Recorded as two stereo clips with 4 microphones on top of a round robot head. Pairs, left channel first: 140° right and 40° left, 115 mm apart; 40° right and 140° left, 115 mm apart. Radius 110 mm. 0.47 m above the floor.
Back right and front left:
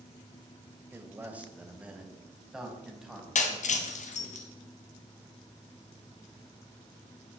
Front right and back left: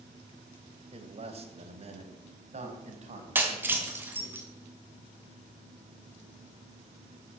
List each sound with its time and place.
0.9 s a man speaking: 110° left, 3 m; by 4.3 s 130° left, 5.5 m
3.4 s breaking glass: 145° right, 2.5 m